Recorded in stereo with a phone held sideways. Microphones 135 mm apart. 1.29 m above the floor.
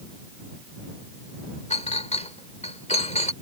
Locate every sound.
1.7 s a clink: 55° left (ahead or behind)